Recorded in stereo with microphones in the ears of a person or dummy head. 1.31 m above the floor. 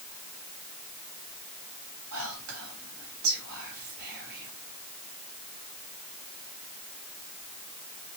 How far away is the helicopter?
I don't hear a helicopter.